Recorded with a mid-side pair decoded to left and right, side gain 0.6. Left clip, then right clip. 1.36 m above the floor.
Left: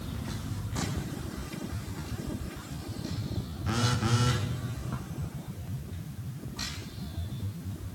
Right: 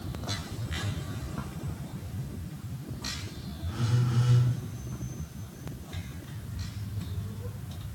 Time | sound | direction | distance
3.6 | a phone buzzing | 65° left | 2.5 m